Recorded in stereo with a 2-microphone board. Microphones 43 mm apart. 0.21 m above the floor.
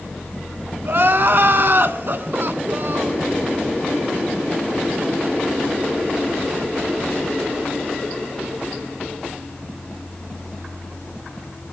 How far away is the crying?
About 0.6 m.